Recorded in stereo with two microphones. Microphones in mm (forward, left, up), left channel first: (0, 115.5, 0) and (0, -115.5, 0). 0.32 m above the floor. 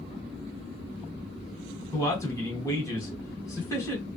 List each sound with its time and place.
1.9 s a man speaking: 15° left (ahead or behind), 1.5 m